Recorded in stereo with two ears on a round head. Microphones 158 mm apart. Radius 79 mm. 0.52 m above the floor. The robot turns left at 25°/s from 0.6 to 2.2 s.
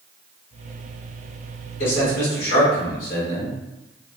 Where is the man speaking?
55° left (ahead or behind), 1.9 m.